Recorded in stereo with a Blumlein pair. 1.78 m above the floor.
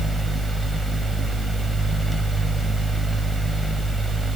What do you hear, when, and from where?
0.0 s a fan: 5° right, 0.8 m